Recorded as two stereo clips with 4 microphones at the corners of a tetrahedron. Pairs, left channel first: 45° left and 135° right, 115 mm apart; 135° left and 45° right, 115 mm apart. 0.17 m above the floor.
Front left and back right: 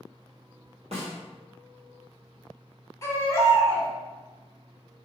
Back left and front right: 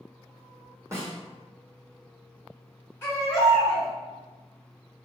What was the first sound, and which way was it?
A snare drum, 110° right.